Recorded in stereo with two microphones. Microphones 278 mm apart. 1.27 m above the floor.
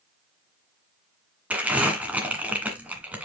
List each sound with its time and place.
1.5 s crumpling: 5° right (ahead or behind), 1.8 m